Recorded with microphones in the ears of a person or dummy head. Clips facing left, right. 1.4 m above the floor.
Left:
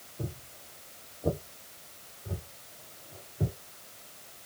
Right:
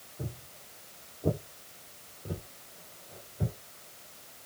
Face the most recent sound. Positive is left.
turn(degrees=-60)  # may be behind; listen again after turning